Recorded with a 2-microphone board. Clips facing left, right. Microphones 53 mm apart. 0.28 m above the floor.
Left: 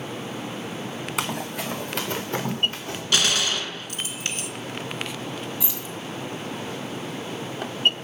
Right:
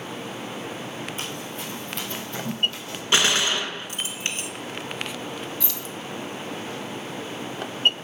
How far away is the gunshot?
About 1.1 m.